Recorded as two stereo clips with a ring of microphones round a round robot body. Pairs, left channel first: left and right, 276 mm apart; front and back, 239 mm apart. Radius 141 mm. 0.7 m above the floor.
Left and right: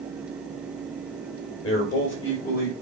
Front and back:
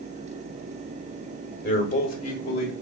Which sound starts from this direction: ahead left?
A man speaking, at 1.6 s.